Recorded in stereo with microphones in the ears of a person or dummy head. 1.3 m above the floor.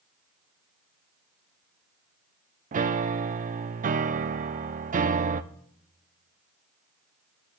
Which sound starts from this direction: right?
A piano, at 2.7 s.